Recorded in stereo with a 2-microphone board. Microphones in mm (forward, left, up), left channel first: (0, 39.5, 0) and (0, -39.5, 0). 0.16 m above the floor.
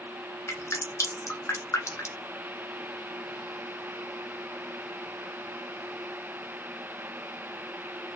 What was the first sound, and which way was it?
Dripping, 40° left (ahead or behind).